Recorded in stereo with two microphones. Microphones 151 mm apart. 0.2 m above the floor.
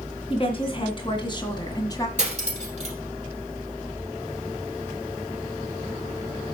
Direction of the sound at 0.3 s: 40° left (ahead or behind).